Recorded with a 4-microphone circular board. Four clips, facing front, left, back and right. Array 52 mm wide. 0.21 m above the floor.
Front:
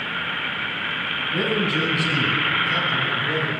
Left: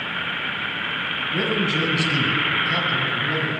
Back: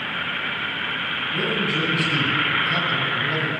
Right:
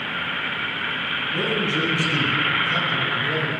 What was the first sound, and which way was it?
A man speaking, 60° left.